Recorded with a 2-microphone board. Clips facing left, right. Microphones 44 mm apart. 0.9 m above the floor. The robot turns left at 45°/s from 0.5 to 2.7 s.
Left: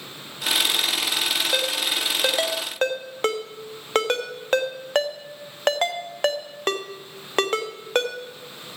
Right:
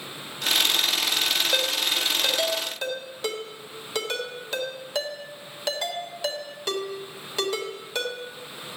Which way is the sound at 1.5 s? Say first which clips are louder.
Left 1 dB; centre (ahead or behind).